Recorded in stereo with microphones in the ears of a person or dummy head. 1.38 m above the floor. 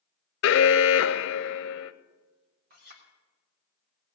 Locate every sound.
0.4 s an alarm: 65° left (ahead or behind), 0.7 m
2.7 s a clink: 50° right (ahead or behind), 3 m